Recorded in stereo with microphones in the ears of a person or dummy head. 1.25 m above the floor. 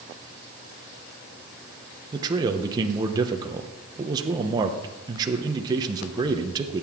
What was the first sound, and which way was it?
A man speaking, 25° right (ahead or behind).